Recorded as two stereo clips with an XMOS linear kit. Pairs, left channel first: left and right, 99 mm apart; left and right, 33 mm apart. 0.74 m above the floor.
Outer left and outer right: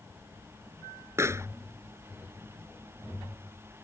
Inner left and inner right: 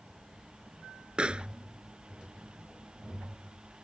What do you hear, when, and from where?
1.2 s a pop: 30° right (ahead or behind)